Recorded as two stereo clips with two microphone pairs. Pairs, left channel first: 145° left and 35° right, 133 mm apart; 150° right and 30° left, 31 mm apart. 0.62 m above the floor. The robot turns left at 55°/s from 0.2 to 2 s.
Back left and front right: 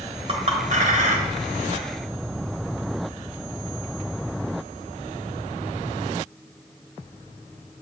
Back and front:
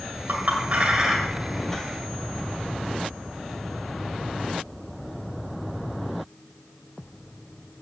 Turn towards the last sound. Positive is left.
turn(degrees=-90)